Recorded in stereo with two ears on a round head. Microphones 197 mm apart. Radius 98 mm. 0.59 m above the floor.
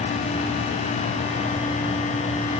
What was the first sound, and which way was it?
Only background noise.